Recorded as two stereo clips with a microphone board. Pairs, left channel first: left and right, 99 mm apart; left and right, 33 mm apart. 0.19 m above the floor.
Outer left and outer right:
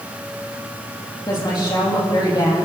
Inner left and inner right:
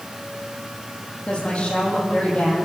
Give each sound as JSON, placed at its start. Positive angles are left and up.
{"t": 1.3, "sound": "a woman speaking", "side_deg": 45, "distance_m": 6.5}